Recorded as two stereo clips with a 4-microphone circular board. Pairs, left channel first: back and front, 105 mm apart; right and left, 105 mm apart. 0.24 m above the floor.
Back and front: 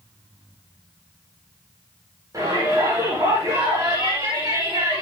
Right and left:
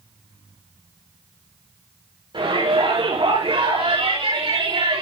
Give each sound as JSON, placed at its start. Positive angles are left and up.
{"t": 2.3, "sound": "a shout", "azimuth_deg": 55, "distance_m": 8.0}